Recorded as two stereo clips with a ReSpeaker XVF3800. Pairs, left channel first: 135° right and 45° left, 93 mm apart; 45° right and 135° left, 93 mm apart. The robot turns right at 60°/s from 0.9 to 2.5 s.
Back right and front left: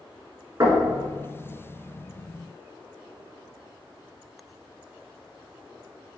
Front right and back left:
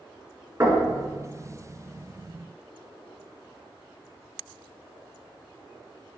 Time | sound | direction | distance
0.6 | knocking | 85° left | 1.9 m